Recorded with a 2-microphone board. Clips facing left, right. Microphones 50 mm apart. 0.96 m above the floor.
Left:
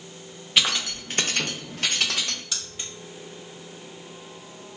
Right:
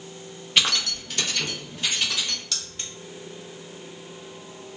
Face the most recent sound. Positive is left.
turn(degrees=15)  # may be behind; listen again after turning